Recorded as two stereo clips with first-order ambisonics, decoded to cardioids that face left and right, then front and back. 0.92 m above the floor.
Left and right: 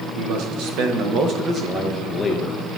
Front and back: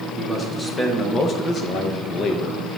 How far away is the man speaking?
About 1.5 m.